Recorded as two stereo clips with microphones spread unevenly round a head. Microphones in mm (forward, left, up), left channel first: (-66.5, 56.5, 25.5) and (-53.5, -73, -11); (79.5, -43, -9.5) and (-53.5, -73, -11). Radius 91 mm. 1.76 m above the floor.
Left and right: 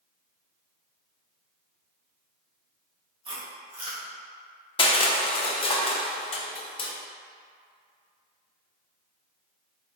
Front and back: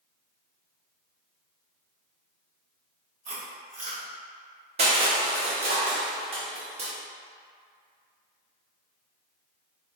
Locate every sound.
3.2 s chewing: 140° right, 1.5 m
4.8 s crushing: 140° left, 0.6 m